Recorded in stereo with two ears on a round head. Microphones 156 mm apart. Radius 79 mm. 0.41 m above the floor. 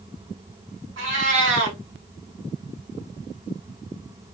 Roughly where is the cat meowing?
Right.